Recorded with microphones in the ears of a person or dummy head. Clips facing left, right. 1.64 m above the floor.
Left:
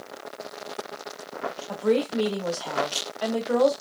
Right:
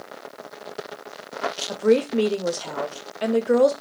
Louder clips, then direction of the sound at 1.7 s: Right 4 dB; 30° right (ahead or behind).